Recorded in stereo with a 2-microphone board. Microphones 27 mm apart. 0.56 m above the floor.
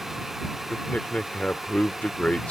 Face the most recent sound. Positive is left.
turn(degrees=60)  # may be behind; listen again after turning